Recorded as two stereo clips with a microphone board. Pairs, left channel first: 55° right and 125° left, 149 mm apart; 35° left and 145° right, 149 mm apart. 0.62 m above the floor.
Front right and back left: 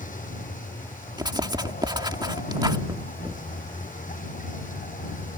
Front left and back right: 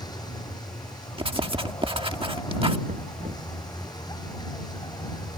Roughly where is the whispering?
No whispering in this recording.